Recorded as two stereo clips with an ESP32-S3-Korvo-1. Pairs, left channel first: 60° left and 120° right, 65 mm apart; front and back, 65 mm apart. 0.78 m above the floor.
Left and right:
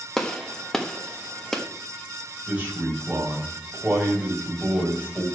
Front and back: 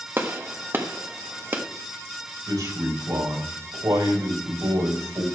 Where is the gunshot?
140° left, 1.3 m.